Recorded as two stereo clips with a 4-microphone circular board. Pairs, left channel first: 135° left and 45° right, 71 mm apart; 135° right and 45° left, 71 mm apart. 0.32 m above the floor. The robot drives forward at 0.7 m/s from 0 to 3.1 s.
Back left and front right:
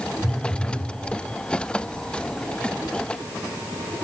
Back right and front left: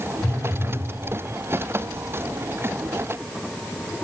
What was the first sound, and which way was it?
A phone buzzing, 95° right.